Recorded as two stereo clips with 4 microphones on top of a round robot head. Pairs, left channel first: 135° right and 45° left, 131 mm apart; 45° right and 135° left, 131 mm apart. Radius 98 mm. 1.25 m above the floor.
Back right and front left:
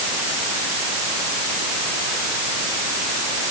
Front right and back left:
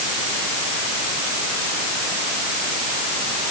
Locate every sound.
Only background noise.